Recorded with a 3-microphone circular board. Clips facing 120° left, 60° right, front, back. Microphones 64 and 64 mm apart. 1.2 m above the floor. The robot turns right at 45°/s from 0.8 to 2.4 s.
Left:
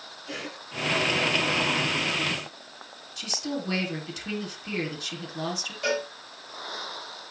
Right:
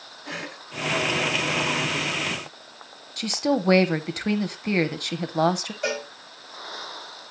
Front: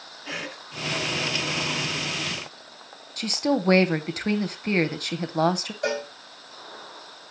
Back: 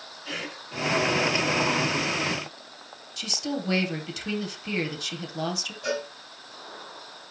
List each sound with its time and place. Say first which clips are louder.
0.2 s a cough: right 2 dB, front 1 dB; 65° right, 4.5 m
3.2 s a woman speaking: right 9 dB, front 7 dB; 35° right, 0.9 m
5.8 s a cowbell: left 1 dB, front 2 dB; 15° left, 7 m